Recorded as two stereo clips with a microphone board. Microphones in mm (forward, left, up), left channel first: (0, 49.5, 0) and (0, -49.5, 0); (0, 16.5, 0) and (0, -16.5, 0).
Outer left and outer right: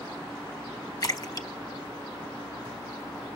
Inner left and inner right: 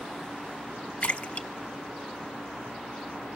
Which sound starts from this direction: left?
A splash, at 1.0 s.